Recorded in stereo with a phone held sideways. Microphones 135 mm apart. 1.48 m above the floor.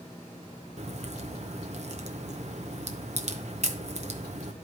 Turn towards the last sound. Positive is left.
turn(degrees=-55)  # may be behind; listen again after turning